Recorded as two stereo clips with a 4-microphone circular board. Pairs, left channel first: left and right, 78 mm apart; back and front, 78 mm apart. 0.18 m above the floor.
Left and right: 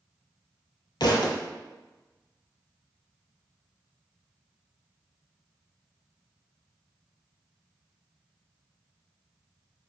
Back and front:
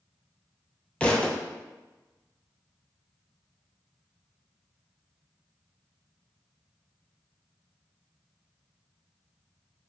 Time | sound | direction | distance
1.0 | a thud | 105° left | 0.8 m